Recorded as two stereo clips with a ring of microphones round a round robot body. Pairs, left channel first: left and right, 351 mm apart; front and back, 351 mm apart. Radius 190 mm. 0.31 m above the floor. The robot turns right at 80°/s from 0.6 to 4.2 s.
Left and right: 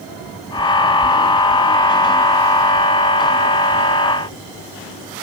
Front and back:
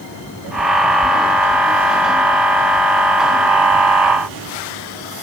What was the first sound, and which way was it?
Only background noise.